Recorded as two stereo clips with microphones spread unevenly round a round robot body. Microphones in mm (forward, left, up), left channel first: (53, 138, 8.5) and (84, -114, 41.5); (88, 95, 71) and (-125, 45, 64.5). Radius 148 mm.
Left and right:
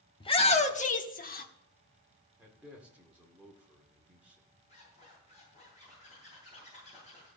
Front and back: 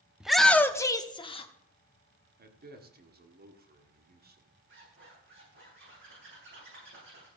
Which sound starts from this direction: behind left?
A shout, at 0.2 s.